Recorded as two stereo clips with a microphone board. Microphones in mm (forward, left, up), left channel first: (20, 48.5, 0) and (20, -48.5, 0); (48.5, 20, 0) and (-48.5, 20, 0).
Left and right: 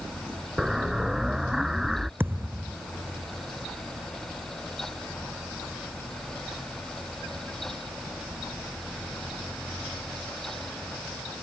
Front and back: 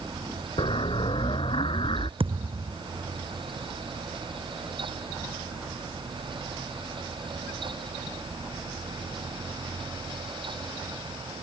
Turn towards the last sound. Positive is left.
turn(degrees=-160)